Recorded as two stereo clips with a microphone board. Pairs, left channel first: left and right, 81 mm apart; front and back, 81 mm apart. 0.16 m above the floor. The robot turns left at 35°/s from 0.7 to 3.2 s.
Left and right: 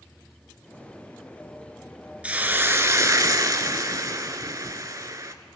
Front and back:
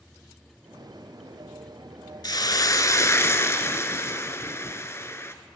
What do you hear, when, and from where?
2.2 s a hiss: 20° right, 0.7 m; by 5.3 s 50° right, 0.7 m